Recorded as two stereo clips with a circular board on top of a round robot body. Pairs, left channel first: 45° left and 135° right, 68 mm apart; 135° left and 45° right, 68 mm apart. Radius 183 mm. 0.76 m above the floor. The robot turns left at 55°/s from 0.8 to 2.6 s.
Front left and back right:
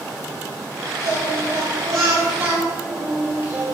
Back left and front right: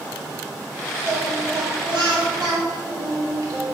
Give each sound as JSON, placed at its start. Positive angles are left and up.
{"t": 1.0, "sound": "singing", "azimuth_deg": 10, "distance_m": 4.0}